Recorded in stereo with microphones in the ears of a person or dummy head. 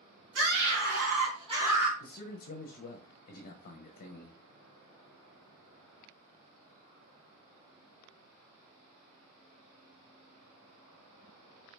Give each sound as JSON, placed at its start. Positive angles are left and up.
{"t": 0.3, "sound": "a scream", "side_deg": -65, "distance_m": 2.0}
{"t": 2.0, "sound": "a man speaking", "side_deg": 45, "distance_m": 0.5}